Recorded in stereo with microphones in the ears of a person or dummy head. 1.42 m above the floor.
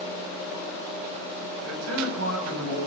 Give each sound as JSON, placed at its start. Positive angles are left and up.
{"t": 1.6, "sound": "a man speaking", "side_deg": -80, "distance_m": 9.0}